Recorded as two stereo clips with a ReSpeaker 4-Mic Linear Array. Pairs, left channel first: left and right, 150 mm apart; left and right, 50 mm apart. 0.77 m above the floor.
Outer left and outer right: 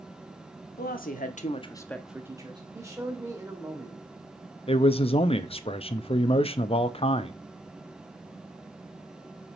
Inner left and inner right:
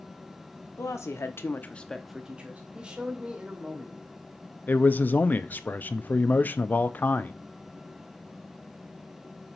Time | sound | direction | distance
0.8 | a woman speaking | 75° left (ahead or behind) | 1.4 m
2.7 | a man speaking | 20° right (ahead or behind) | 2.0 m
4.7 | a man speaking | 40° left (ahead or behind) | 0.6 m